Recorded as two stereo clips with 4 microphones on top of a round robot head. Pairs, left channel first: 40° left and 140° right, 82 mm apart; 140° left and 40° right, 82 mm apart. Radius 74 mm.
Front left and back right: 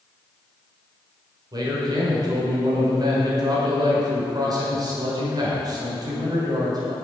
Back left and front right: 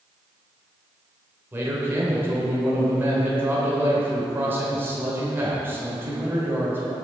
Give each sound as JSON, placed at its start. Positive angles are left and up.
{"t": 1.5, "sound": "a man speaking", "azimuth_deg": -105, "distance_m": 1.7}